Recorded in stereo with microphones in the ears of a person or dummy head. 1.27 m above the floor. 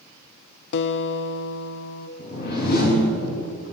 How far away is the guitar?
About 0.6 m.